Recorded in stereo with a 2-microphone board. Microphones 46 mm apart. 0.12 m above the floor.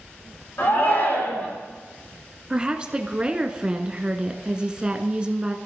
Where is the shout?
55° left (ahead or behind), 7.5 m.